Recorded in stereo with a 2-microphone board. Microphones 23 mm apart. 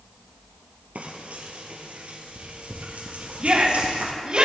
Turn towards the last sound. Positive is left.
turn(degrees=-35)  # may be behind; listen again after turning